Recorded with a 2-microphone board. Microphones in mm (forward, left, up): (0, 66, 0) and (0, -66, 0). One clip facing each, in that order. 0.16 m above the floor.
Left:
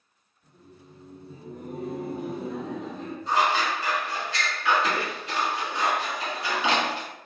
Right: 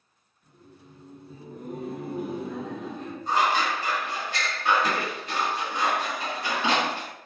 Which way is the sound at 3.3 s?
50° right (ahead or behind).